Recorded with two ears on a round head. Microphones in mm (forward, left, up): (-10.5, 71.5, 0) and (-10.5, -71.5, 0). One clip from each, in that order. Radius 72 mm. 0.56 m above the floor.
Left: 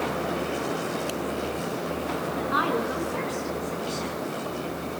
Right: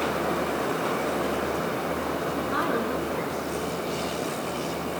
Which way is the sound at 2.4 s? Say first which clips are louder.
Left 3 dB; 25° left (ahead or behind).